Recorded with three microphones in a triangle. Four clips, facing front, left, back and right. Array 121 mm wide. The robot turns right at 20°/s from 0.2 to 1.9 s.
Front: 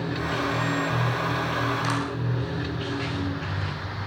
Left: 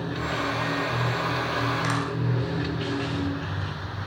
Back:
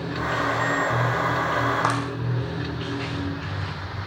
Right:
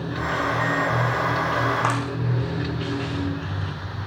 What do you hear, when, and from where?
1.8 s a clap: 145° right, 5 m